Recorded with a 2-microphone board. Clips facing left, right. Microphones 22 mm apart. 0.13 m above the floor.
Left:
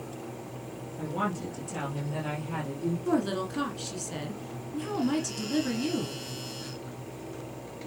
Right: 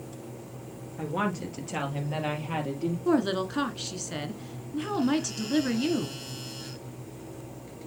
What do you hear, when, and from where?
1.0 s a woman speaking: 30° right (ahead or behind), 3 m; by 3.0 s 45° right (ahead or behind), 3.5 m
3.0 s a woman speaking: 20° right (ahead or behind), 1.2 m